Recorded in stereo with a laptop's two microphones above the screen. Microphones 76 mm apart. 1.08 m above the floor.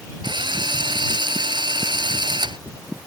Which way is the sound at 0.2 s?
85° right.